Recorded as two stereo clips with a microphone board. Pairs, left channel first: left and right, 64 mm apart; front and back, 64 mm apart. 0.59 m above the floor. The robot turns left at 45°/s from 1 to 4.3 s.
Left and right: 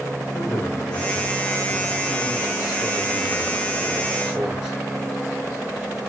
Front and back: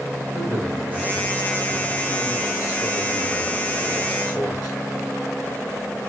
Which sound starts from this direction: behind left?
A man speaking, at 0.3 s.